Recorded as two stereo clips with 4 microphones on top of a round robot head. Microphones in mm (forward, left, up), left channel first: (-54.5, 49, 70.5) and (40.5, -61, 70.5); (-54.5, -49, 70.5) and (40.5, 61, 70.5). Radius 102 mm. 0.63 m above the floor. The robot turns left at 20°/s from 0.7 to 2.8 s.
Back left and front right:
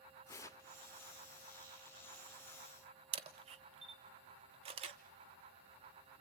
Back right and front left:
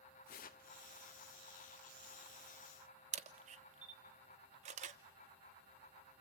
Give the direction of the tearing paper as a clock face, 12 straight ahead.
5 o'clock.